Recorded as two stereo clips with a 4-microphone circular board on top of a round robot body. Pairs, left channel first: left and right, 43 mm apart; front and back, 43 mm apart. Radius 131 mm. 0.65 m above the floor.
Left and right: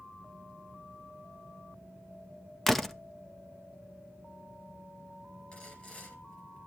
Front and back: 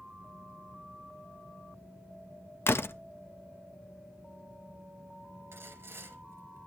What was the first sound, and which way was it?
A door slam, 10° left.